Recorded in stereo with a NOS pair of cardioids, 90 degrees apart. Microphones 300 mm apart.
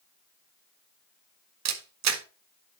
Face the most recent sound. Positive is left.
turn(degrees=-60)